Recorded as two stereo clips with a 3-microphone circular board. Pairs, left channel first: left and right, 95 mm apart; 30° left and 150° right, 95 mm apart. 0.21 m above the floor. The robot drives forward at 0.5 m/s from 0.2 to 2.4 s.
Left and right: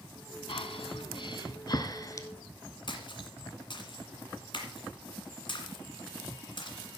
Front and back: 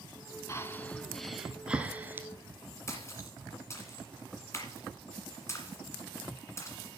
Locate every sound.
0.5 s breathing: 85° left, 0.7 m; by 2.3 s 145° left, 1.1 m
2.9 s a splash: 80° left, 1.8 m